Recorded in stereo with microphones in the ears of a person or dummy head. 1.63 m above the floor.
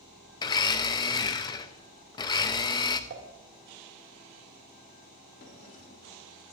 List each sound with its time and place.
0.4 s a blender: 20° left (ahead or behind), 0.7 m
3.1 s dishes clattering: 55° right (ahead or behind), 1.6 m
5.4 s a drawer: 50° left (ahead or behind), 3 m